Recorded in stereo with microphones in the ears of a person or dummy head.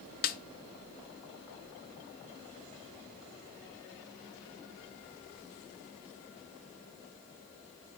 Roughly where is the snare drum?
Left.